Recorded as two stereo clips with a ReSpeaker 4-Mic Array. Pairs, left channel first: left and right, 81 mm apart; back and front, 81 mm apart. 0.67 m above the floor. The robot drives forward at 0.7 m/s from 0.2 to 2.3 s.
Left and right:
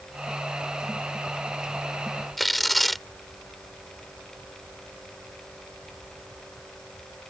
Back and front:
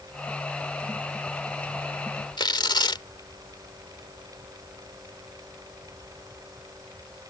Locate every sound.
2.4 s tearing paper: straight behind